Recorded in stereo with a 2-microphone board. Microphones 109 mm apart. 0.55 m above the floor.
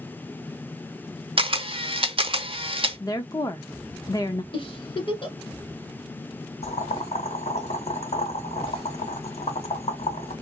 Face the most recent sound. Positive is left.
turn(degrees=85)